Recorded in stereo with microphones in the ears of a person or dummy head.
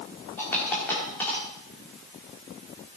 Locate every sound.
0.4 s a dropped coin: 10° left (ahead or behind), 1.6 m